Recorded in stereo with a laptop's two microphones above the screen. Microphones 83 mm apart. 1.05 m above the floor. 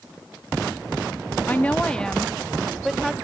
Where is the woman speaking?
20° left (ahead or behind), 0.7 m; by 3.1 s centre (ahead or behind), 1.4 m.